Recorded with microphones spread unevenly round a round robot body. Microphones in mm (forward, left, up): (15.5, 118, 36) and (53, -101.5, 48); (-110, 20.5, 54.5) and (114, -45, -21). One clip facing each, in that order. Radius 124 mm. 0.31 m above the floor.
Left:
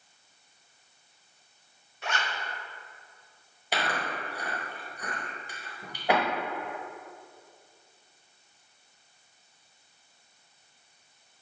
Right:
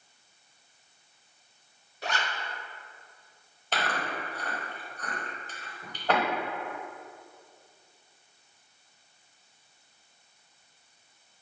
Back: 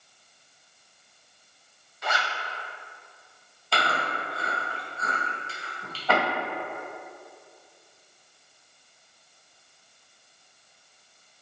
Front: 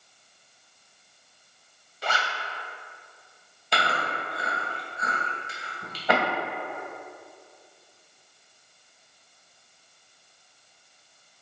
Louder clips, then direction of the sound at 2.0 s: Right 1 dB, even; 35° right.